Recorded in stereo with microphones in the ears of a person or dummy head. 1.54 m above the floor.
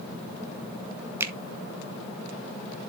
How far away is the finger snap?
About 1.1 m.